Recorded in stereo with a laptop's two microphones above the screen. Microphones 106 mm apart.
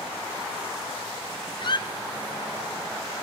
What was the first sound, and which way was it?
A squeak, 45° left (ahead or behind).